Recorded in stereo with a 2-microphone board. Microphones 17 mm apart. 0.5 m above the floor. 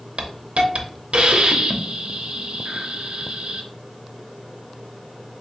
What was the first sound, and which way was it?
A hiss, 80° right.